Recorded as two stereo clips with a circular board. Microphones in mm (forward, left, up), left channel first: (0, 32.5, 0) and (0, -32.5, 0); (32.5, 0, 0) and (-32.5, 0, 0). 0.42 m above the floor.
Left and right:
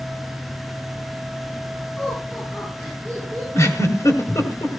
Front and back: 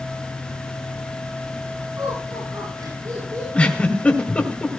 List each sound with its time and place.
2.0 s laughter: 150° left, 8.5 m; by 3.4 s 145° left, 8.5 m
3.5 s a giggle: 65° left, 2.5 m